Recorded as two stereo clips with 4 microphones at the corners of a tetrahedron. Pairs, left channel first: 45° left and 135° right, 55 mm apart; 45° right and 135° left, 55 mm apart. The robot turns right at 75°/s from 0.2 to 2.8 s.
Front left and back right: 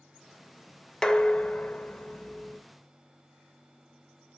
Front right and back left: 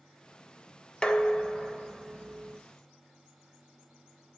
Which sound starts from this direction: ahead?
Dishes clattering, at 1.0 s.